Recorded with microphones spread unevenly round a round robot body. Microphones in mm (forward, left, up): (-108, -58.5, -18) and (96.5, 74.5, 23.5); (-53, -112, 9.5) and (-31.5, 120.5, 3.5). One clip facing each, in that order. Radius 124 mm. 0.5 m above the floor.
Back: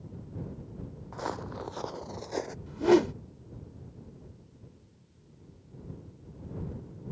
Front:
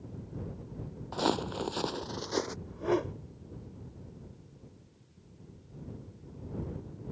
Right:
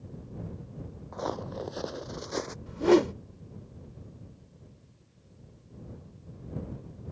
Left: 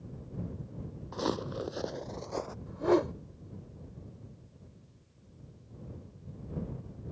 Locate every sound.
1.1 s footsteps: 35° left; by 2.6 s 40° right
2.7 s a whoosh: 140° right